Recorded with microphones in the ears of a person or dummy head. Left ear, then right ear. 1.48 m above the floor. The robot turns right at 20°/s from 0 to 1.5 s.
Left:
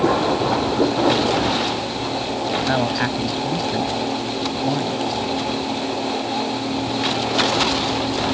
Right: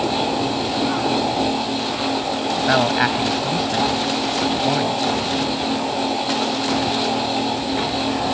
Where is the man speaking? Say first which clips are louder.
Right 5 dB; 35° right (ahead or behind).